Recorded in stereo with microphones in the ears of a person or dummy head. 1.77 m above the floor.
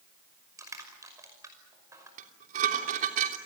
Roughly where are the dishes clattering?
Right.